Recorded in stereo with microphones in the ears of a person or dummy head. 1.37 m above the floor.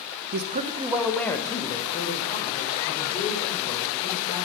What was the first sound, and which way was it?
A man speaking, 60° right (ahead or behind).